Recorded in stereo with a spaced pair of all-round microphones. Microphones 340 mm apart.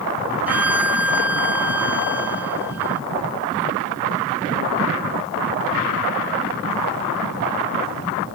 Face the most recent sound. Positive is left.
turn(degrees=-5)  # may be behind; listen again after turning